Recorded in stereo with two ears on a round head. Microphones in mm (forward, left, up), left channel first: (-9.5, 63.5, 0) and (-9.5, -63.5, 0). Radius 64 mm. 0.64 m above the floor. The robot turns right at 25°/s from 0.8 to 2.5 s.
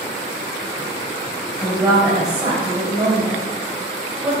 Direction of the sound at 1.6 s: 10° right (ahead or behind).